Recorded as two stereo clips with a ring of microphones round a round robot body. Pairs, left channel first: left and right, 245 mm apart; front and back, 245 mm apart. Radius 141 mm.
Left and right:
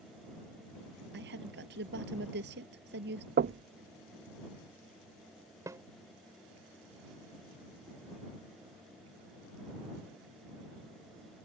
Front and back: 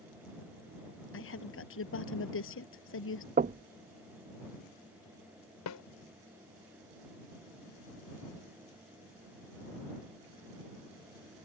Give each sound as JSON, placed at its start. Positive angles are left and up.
{"t": 1.1, "sound": "a woman speaking", "azimuth_deg": -35}
{"t": 3.4, "sound": "knocking", "azimuth_deg": -130}
{"t": 5.7, "sound": "a snare drum", "azimuth_deg": -10}